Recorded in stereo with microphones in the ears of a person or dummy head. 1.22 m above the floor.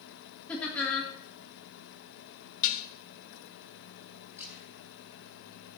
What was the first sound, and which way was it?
Laughter, 10° left (ahead or behind).